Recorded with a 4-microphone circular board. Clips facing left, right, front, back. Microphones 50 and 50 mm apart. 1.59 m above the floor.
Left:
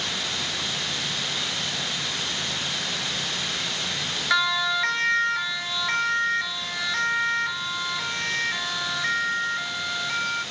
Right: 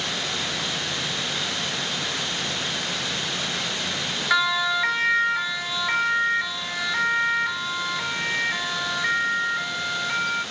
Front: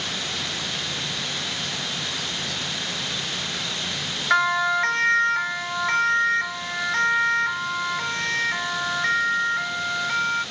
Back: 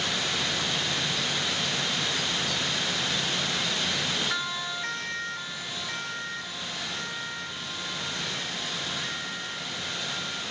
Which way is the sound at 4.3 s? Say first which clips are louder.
Right 1 dB, front 12 dB; 5° right.